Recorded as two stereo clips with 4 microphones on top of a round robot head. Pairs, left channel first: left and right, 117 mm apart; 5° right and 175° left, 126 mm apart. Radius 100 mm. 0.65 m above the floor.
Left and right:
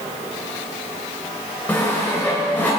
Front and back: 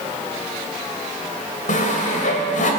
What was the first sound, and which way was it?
Sawing, 10° left.